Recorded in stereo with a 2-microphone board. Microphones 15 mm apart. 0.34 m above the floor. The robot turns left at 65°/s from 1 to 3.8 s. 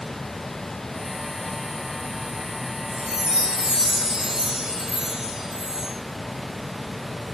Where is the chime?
60° right, 4 m; by 5.9 s 120° right, 4 m.